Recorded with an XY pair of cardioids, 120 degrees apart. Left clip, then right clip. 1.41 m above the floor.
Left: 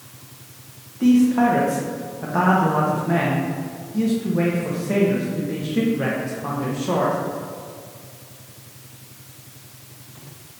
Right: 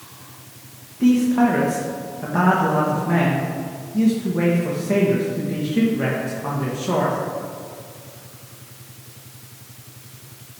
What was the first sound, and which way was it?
A man speaking, 5° left.